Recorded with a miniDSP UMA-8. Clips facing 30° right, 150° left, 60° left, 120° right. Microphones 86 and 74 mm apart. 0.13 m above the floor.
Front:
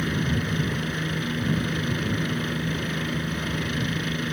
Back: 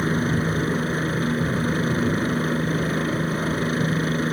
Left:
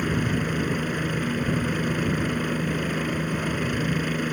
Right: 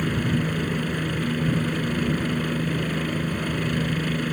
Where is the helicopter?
135° left.